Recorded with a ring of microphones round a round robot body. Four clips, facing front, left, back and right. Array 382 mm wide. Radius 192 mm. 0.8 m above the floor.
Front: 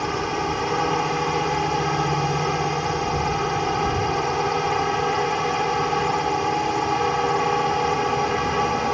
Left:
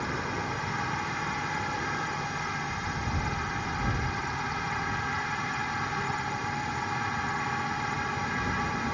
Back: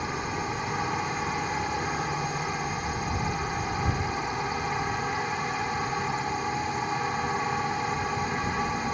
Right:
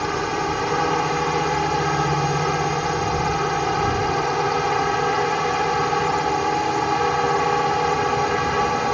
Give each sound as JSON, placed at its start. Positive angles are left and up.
{"t": 0.0, "sound": "a drone", "azimuth_deg": -55}